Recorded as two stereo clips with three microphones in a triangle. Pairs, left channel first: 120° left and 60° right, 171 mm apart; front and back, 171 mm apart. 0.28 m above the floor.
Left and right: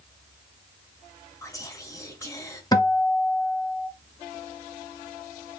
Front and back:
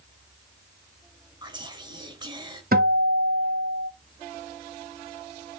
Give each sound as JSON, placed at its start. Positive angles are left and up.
{"t": 1.4, "sound": "whispering", "azimuth_deg": 165, "distance_m": 1.1}
{"t": 2.7, "sound": "a guitar", "azimuth_deg": -175, "distance_m": 0.9}